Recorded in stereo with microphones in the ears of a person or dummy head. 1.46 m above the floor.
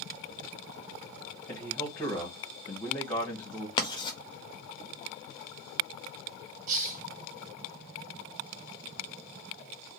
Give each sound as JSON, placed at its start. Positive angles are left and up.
{"t": 1.5, "sound": "a man speaking", "side_deg": 15, "distance_m": 1.5}
{"t": 3.8, "sound": "writing", "side_deg": 25, "distance_m": 0.8}
{"t": 6.7, "sound": "a hiss", "side_deg": -45, "distance_m": 0.7}